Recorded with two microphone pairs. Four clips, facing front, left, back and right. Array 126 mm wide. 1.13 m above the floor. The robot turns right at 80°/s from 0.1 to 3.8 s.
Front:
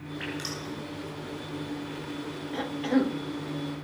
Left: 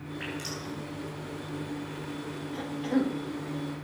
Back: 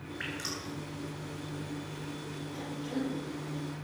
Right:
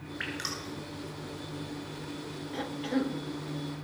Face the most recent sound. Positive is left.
turn(degrees=85)